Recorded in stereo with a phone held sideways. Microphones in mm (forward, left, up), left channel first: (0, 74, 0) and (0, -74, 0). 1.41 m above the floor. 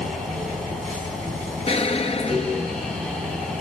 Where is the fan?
5° left (ahead or behind), 4.5 m.